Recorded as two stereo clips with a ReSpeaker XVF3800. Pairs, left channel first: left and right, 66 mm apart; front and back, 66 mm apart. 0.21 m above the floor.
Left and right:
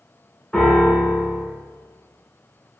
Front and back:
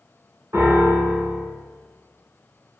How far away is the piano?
About 1.7 m.